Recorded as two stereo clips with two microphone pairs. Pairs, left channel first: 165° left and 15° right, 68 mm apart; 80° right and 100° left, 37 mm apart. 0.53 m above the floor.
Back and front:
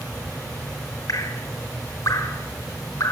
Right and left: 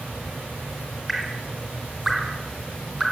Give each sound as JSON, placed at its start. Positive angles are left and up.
{"t": 1.1, "sound": "dripping", "azimuth_deg": -175, "distance_m": 2.5}